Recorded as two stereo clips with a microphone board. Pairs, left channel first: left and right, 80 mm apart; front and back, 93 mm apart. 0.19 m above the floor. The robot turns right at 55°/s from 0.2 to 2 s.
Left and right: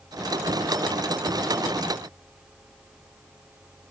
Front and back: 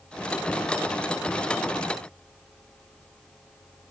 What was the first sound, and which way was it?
Only background noise.